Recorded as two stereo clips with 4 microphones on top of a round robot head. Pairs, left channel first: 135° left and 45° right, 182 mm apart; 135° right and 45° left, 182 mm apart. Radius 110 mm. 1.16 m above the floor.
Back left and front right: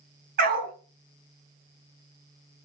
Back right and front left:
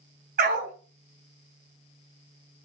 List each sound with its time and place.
0.4 s a dog barking: 5° right, 3 m